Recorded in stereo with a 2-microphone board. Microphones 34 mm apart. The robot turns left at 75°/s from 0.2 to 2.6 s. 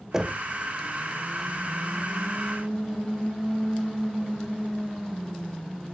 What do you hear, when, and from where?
0.1 s knocking: 15° right (ahead or behind), 0.8 m; by 0.4 s 10° right (ahead or behind), 0.8 m